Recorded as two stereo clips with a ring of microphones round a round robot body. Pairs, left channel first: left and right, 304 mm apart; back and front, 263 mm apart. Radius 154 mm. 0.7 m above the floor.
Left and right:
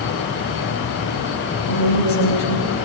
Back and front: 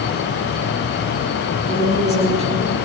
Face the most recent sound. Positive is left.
turn(degrees=115)